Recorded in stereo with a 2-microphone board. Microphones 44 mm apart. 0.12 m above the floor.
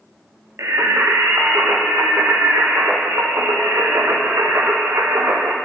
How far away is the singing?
About 2.5 m.